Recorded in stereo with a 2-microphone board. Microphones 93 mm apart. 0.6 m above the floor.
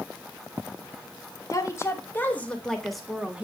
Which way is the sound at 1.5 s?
35° left (ahead or behind).